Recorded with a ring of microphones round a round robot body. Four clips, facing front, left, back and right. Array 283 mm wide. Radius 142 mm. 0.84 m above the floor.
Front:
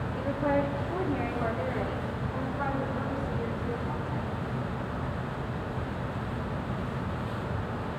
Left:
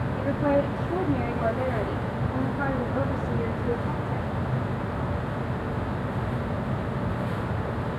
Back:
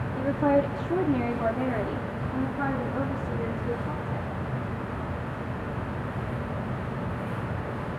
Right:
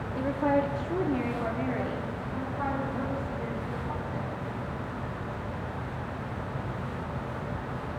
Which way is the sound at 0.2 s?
160° right.